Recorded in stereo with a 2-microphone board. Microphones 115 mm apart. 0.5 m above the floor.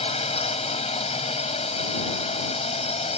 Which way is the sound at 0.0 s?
65° left (ahead or behind).